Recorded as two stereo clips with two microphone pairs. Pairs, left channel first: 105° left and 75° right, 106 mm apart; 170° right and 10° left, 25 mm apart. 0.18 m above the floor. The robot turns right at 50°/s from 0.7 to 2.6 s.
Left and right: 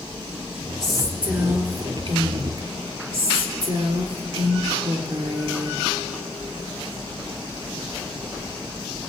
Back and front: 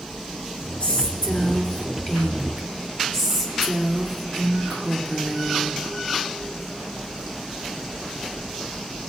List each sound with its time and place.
0.8 s a woman speaking: 170° right, 3 m; by 5.8 s 80° right, 3 m